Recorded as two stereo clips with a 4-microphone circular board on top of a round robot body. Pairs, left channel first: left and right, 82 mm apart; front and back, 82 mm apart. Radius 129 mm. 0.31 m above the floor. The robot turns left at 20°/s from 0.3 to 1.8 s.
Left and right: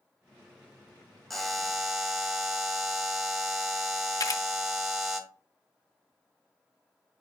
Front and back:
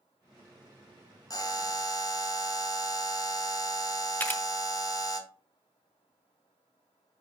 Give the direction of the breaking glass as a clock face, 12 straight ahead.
I don't hear breaking glass.